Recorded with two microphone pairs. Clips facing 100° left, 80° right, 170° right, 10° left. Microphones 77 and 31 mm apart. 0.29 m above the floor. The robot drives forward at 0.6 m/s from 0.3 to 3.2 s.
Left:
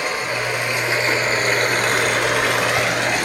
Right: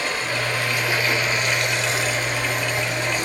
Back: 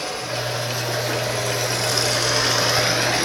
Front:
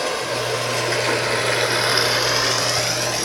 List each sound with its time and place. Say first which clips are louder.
0.0 s running water: left 2 dB, front 4 dB; 25° left, 1.3 m; by 3.2 s 130° left, 0.8 m